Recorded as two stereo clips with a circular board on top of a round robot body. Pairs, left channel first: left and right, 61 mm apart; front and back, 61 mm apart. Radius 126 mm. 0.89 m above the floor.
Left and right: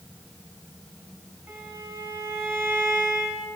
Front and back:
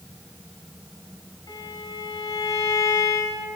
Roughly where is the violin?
Ahead right.